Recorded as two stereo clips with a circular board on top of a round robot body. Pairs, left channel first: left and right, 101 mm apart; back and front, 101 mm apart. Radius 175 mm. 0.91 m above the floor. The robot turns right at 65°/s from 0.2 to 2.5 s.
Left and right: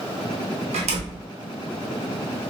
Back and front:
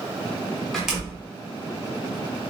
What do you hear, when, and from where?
0.7 s a door slam: 95° right, 0.8 m; by 1.3 s 60° right, 0.8 m